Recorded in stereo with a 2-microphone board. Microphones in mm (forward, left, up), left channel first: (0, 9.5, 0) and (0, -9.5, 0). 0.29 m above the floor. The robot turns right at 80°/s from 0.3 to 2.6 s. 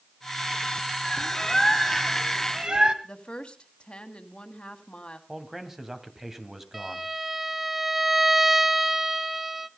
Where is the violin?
10° right (ahead or behind), 0.9 m.